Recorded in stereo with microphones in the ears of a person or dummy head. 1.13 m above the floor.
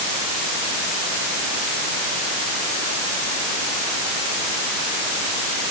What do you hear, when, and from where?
Only background noise.